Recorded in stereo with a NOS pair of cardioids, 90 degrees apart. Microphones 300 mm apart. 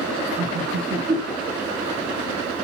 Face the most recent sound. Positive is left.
turn(degrees=-25)